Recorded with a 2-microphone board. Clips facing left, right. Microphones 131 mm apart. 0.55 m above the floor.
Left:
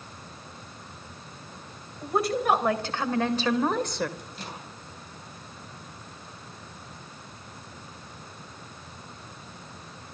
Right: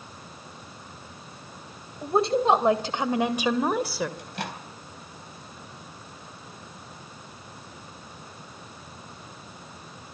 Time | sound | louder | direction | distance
2.0 | a woman speaking | right 3 dB | 30° right (ahead or behind) | 2.5 m
4.2 | a microwave | right 5 dB | 75° right (ahead or behind) | 3 m